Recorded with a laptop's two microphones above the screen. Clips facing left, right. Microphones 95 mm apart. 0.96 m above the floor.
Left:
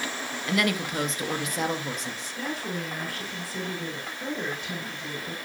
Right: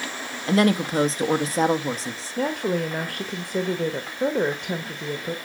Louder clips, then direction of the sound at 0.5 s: Right 7 dB; 35° right (ahead or behind).